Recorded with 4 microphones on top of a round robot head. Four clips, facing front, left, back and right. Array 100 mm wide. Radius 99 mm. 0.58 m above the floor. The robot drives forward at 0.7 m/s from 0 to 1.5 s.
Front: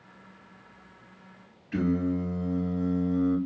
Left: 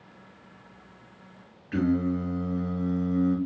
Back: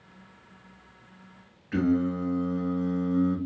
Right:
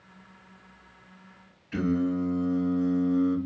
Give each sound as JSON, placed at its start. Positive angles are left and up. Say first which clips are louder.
{"t": 1.7, "sound": "singing", "louder": "left 1 dB, back 2 dB", "azimuth_deg": 140, "distance_m": 2.0}